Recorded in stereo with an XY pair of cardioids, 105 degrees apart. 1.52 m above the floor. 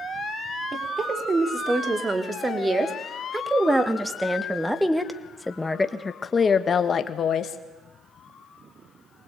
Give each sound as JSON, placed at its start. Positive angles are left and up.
{"t": 0.7, "sound": "a woman speaking", "azimuth_deg": -40, "distance_m": 4.5}